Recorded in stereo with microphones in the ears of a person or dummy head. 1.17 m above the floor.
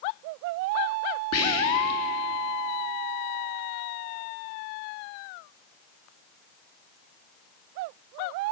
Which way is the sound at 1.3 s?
75° left (ahead or behind).